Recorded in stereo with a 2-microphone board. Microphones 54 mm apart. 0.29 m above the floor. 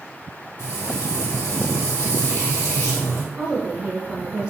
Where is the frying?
55° left (ahead or behind), 2 m.